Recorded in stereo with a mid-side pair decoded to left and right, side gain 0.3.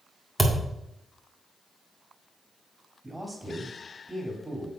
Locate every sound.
0.4 s a thud: 5° right, 1.7 m
3.0 s a man speaking: 10° right, 3 m